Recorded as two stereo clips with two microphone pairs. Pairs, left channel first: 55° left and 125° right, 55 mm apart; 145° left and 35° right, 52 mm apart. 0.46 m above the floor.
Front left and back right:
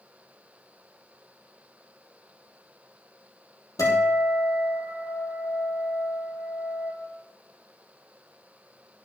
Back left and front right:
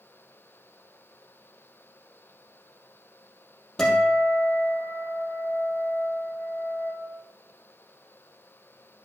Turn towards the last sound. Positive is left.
turn(degrees=65)